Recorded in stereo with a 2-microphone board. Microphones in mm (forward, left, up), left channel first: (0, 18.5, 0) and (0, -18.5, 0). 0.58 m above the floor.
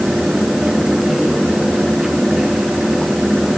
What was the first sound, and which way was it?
Only background noise.